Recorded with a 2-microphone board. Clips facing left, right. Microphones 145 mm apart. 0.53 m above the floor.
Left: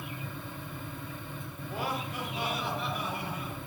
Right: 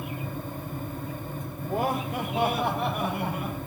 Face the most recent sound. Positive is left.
turn(degrees=-60)  # may be behind; listen again after turning